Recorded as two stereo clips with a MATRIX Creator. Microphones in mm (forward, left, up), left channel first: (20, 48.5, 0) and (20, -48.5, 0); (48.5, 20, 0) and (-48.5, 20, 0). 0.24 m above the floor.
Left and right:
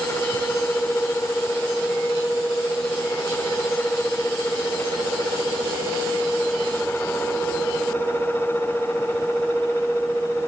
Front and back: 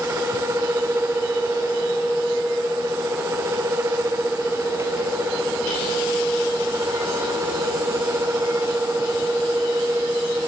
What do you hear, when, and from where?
Only background noise.